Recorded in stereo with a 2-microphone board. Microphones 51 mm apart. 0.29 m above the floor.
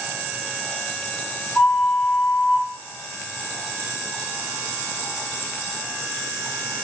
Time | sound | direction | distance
1.6 | a flute | 30° left (ahead or behind) | 5.5 m